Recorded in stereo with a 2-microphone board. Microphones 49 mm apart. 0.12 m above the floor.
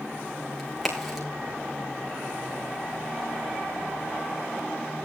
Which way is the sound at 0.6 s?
5° right (ahead or behind).